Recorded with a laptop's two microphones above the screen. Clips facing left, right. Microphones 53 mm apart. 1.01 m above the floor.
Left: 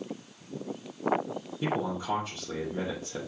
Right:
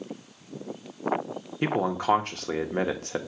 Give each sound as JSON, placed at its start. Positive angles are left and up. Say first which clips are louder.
{"t": 1.6, "sound": "a man speaking", "louder": "right 6 dB", "side_deg": -65, "distance_m": 1.3}